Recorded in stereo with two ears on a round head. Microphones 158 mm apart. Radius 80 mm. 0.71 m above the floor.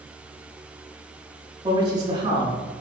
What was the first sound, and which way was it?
A man speaking, 25° right (ahead or behind).